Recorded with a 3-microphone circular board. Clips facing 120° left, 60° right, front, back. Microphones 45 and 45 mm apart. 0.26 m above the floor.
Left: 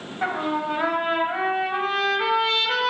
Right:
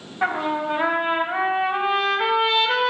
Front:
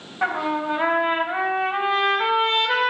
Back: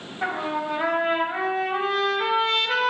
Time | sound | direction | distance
0.2 | a trumpet | 5° right | 0.9 m